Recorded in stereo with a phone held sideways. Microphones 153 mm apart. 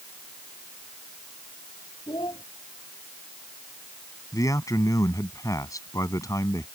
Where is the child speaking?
30° left (ahead or behind).